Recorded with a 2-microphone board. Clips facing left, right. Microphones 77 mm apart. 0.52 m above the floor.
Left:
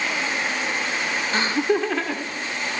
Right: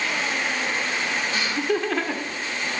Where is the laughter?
45° left (ahead or behind), 0.9 m; by 2.4 s 20° right (ahead or behind), 1.2 m.